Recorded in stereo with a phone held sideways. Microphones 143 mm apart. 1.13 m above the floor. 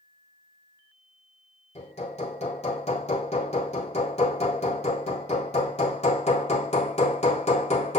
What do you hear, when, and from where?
1.8 s hammering: 50° left (ahead or behind), 2.5 m